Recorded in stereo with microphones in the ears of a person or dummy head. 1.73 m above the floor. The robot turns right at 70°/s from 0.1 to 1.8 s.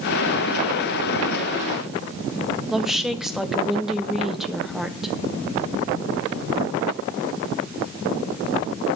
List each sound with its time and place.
2.7 s a woman speaking: 5° right (ahead or behind), 1.2 m